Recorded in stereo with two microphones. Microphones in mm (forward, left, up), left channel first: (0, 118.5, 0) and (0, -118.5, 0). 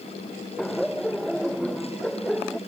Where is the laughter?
Centre (ahead or behind).